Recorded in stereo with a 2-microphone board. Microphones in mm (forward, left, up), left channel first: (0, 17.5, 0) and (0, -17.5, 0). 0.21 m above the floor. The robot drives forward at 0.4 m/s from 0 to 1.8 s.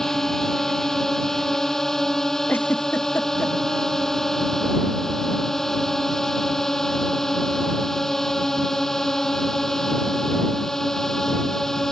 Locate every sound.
0.0 s a drone: 10° left (ahead or behind)
2.5 s a giggle: 90° left